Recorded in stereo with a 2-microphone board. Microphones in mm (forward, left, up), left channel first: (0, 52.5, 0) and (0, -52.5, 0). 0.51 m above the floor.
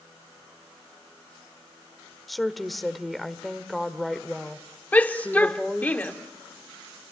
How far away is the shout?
About 1.5 m.